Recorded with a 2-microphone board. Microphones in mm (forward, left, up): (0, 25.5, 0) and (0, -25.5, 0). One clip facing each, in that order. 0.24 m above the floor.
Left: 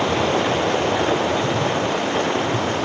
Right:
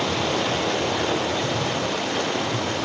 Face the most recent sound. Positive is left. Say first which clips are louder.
# left 4 dB
turn(degrees=30)  # may be behind; listen again after turning